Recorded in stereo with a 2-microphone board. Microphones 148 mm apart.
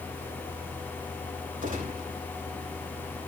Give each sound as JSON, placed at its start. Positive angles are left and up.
{"t": 1.6, "sound": "a gunshot", "side_deg": -65, "distance_m": 5.5}